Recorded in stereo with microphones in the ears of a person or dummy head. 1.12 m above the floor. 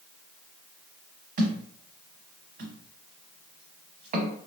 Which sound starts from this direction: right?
A thud, at 1.4 s.